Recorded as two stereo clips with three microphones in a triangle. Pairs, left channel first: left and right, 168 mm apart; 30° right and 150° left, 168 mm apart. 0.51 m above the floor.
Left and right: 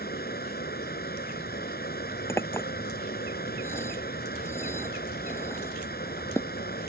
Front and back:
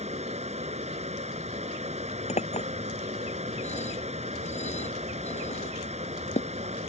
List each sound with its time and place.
0.0 s running water: 105° left
2.3 s a clink: 15° left